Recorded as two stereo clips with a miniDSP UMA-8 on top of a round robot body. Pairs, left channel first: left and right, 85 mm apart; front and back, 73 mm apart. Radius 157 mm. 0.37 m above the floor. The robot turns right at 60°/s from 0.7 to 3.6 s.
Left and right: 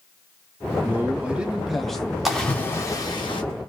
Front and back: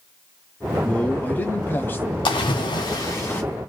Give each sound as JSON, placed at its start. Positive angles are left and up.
{"t": 0.8, "sound": "a man speaking", "azimuth_deg": -60, "distance_m": 1.0}
{"t": 2.2, "sound": "a splash", "azimuth_deg": -5, "distance_m": 1.3}